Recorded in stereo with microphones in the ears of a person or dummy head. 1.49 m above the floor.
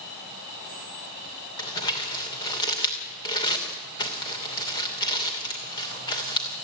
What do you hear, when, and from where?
1.6 s crumpling: 25° left (ahead or behind), 2.5 m